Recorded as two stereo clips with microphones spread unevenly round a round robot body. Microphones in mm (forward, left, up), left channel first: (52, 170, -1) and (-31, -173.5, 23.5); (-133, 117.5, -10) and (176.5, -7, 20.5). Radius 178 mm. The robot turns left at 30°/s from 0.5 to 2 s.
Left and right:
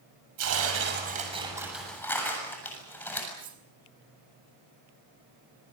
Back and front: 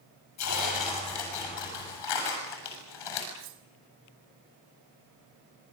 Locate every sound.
0.4 s tearing paper: 155° right, 8 m; by 3.3 s 160° left, 8 m
3.4 s cutlery clinking: 35° right, 3 m